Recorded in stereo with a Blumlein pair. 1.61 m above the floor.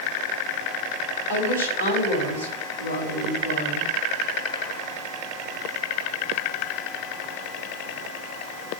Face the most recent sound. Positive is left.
turn(degrees=70)